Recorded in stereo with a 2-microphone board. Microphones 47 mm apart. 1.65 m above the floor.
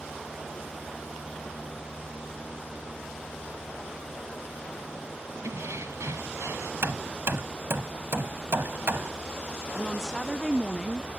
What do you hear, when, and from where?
5.4 s keys jangling: 75° right (ahead or behind); by 6.7 s 80° right
6.8 s hammering: 55° right (ahead or behind)
9.7 s a woman speaking: 5° left (ahead or behind)